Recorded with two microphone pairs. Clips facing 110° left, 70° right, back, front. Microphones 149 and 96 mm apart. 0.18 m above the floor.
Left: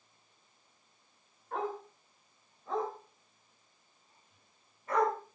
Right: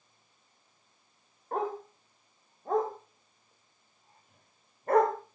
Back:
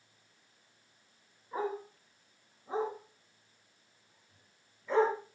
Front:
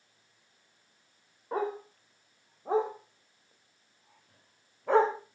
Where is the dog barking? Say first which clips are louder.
Right 4 dB, front 3 dB; 25° right, 6.5 m; by 5.2 s 35° right, 4 m.